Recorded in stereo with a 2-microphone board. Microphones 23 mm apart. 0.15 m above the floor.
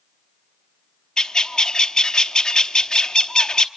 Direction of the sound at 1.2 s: 40° left (ahead or behind).